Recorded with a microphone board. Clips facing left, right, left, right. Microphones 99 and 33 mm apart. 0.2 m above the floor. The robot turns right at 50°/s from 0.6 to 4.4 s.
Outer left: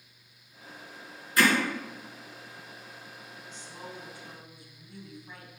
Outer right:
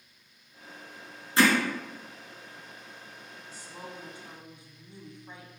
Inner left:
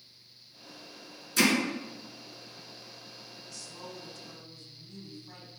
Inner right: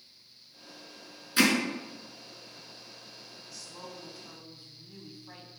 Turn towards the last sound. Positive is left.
turn(degrees=-25)  # may be behind; listen again after turning